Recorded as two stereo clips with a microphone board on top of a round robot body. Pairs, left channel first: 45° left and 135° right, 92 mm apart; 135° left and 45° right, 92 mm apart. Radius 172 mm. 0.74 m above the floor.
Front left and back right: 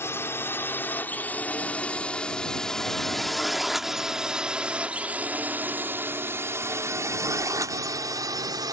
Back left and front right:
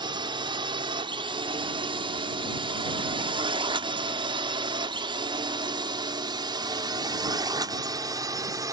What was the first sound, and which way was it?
A drone, 15° right.